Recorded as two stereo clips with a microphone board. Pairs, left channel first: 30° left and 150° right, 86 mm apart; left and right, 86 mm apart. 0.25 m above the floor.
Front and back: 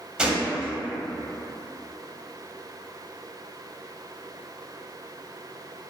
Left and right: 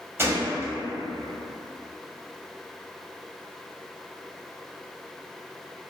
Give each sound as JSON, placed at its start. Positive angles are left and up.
{"t": 0.2, "sound": "a gunshot", "azimuth_deg": -85, "distance_m": 0.5}